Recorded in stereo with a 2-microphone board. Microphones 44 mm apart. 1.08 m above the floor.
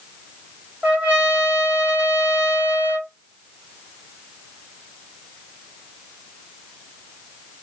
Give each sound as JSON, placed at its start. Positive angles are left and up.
{"t": 0.8, "sound": "a trumpet", "side_deg": -30, "distance_m": 2.5}